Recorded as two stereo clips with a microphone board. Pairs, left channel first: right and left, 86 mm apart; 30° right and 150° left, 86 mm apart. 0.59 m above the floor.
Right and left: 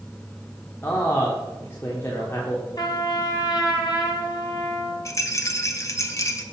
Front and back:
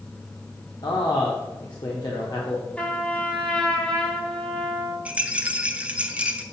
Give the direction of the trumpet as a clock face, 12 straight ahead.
3 o'clock.